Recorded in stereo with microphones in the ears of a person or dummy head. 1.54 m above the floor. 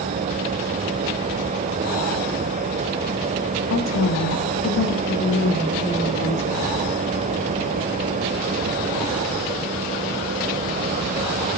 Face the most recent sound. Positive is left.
turn(degrees=65)  # may be behind; listen again after turning